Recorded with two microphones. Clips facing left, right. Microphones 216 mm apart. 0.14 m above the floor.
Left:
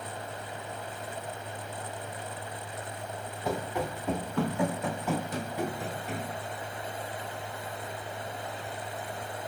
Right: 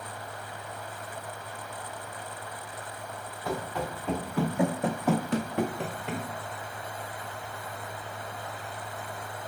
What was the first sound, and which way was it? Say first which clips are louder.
Running footsteps: left 1 dB; 20° left (ahead or behind).